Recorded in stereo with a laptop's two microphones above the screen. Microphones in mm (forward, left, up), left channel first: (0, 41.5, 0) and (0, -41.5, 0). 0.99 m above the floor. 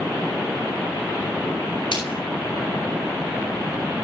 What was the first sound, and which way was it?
A splash, 85° left.